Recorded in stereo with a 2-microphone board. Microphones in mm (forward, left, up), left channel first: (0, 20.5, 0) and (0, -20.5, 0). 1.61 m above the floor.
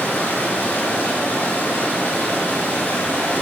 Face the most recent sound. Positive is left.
turn(degrees=60)  # may be behind; listen again after turning